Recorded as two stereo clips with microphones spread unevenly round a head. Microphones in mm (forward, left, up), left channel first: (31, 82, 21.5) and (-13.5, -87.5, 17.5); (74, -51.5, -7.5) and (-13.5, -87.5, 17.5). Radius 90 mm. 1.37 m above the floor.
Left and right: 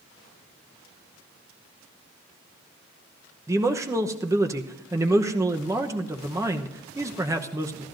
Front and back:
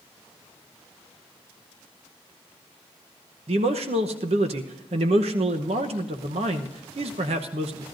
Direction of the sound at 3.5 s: Straight behind.